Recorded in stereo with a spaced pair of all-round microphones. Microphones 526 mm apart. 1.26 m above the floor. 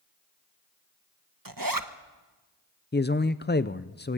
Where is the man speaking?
20° left (ahead or behind), 0.6 m.